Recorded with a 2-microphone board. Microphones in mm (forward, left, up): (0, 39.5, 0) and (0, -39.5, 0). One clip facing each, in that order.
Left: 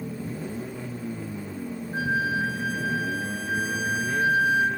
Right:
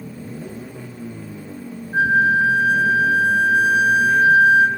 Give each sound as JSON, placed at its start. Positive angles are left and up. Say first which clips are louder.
{"t": 1.9, "sound": "a flute", "louder": "right 10 dB", "side_deg": -45, "distance_m": 1.0}